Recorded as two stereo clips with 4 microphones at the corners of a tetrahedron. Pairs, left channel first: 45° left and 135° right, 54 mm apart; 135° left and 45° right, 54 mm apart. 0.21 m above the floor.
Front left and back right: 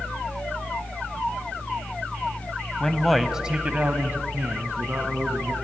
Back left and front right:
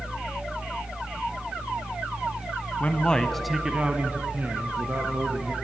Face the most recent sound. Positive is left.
turn(degrees=-85)